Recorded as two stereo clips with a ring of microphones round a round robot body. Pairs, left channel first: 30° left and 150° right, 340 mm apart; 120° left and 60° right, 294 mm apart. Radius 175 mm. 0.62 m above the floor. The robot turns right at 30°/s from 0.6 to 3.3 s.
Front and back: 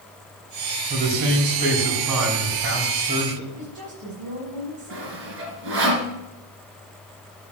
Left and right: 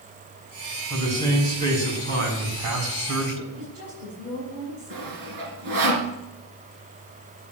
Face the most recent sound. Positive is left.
turn(degrees=-95)